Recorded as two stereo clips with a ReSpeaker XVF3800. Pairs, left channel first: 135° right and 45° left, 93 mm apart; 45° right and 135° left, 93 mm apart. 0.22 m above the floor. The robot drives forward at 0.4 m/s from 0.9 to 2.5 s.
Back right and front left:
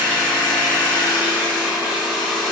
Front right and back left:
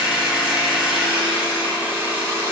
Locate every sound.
0.0 s an engine running: 55° left, 1.0 m; by 2.5 s 130° left, 1.0 m